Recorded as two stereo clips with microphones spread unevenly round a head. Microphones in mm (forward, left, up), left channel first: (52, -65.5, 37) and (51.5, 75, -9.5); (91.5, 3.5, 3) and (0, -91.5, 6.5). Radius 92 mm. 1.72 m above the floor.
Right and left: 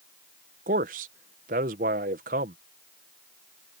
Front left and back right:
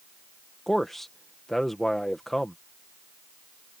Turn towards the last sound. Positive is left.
turn(degrees=135)